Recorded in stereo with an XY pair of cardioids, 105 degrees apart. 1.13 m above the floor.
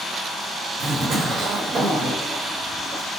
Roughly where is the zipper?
Ahead right.